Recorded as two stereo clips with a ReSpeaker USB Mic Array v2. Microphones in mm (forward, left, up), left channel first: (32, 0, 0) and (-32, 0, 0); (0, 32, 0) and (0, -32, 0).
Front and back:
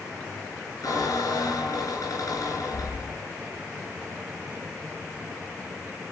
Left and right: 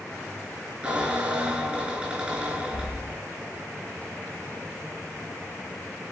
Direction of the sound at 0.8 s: 25° right.